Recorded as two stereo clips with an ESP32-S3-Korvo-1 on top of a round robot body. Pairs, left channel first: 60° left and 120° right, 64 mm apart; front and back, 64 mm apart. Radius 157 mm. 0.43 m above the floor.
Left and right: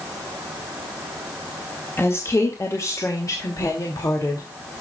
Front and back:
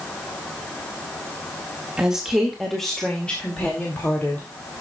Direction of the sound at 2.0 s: 105° left.